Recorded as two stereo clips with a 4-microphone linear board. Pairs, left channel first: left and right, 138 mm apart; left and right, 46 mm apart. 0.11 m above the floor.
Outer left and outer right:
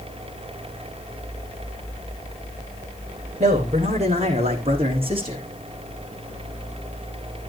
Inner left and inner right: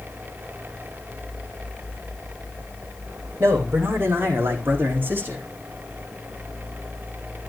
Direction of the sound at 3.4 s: 55° right (ahead or behind).